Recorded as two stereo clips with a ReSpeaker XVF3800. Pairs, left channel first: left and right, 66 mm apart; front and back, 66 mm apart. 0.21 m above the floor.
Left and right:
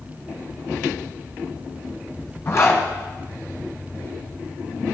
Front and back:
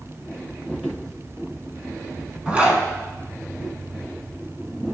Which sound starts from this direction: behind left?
A zipper, at 2.5 s.